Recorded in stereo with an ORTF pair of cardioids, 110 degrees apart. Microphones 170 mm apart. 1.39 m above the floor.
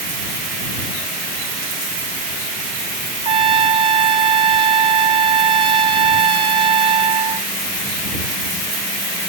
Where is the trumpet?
30° right.